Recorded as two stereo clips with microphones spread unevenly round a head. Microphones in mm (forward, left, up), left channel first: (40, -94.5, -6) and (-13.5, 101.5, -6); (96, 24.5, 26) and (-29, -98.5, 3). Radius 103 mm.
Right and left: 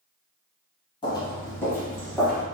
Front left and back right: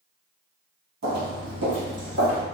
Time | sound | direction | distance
1.0 | footsteps | 135° right | 1.4 m